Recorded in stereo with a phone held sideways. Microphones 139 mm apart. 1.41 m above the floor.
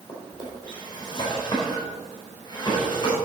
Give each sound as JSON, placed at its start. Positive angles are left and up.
{"t": 0.1, "sound": "a drawer", "side_deg": 30, "distance_m": 4.0}